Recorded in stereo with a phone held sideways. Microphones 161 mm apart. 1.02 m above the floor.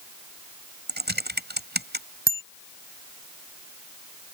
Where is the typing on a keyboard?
85° right.